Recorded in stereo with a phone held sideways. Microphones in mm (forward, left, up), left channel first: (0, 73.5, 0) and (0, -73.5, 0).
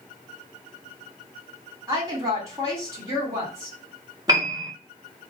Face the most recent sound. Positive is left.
turn(degrees=-25)  # may be behind; listen again after turning